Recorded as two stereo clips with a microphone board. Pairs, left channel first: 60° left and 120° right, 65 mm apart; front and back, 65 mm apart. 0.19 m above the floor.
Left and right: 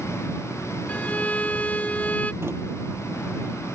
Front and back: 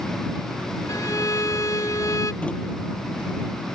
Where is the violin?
5° right.